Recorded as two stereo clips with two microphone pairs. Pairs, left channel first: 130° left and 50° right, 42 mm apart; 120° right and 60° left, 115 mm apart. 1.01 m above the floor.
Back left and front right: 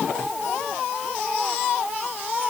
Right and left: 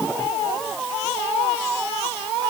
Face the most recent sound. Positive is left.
No sound to turn to.